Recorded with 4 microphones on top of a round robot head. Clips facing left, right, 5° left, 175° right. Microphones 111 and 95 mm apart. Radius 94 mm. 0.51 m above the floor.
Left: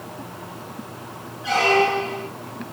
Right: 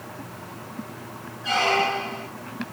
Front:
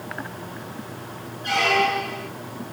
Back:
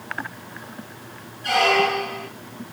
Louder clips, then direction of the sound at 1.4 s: Left 4 dB, back 2 dB; 175° left.